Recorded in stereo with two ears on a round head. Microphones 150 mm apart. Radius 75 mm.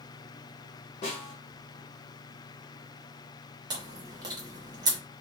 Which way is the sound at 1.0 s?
35° left (ahead or behind).